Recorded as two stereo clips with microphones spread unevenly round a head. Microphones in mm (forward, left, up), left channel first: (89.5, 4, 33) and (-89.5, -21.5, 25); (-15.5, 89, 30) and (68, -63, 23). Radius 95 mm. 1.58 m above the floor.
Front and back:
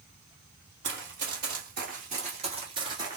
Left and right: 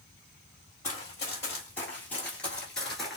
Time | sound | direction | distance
0.8 | running footsteps | 170° right | 2.5 m